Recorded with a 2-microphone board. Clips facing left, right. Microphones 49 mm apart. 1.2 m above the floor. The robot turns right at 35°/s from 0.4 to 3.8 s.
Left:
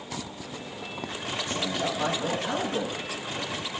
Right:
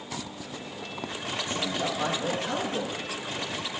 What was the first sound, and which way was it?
A man speaking, 30° right.